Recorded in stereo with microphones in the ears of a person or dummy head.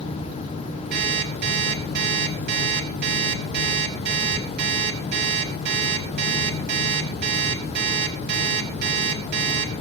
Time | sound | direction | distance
0.9 | an alarm clock | 60° right (ahead or behind) | 7.5 m